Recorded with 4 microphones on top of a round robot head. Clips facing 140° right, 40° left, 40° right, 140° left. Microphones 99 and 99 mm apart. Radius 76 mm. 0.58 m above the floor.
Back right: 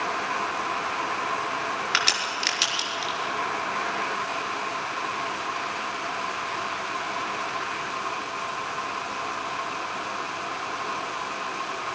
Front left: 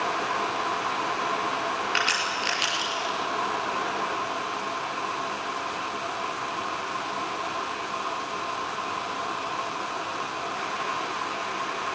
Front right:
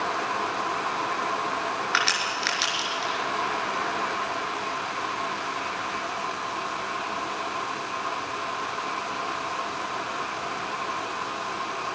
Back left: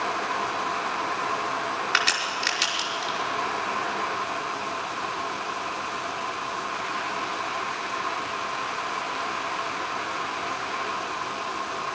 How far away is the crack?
About 5 m.